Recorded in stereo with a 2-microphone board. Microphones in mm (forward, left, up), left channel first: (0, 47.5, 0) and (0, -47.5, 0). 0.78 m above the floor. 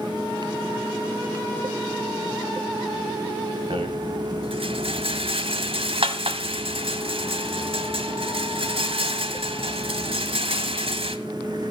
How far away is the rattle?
About 1.6 m.